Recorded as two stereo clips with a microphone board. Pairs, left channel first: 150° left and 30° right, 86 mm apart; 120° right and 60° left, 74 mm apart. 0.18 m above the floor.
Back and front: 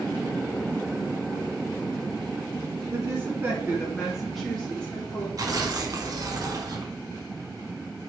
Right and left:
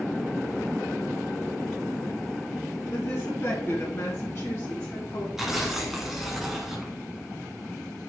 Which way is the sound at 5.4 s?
25° right.